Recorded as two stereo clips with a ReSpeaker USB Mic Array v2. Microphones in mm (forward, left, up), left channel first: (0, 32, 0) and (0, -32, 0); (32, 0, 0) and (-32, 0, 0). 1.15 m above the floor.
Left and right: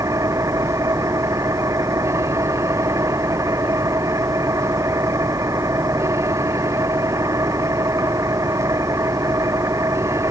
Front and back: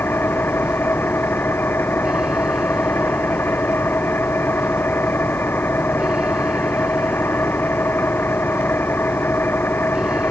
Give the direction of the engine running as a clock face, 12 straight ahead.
2 o'clock.